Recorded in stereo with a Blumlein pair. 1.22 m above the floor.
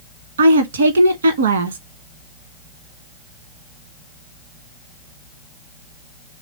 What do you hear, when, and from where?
0.4 s a woman speaking: 65° right, 1.2 m